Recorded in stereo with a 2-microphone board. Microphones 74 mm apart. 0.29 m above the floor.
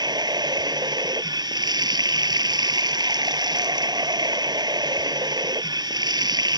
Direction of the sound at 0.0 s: 70° right (ahead or behind).